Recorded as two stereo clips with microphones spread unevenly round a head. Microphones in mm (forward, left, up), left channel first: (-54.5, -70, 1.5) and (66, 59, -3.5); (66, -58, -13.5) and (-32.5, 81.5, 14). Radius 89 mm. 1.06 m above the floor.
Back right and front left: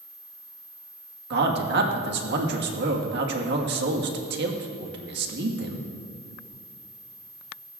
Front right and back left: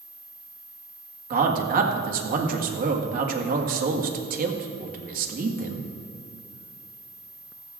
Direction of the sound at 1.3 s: 80° left.